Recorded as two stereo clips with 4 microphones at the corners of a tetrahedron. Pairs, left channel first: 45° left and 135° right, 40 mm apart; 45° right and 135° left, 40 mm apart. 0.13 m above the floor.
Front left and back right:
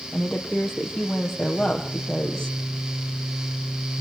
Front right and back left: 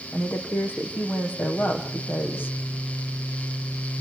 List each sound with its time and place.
0.1 s a woman speaking: 35° right, 4.5 m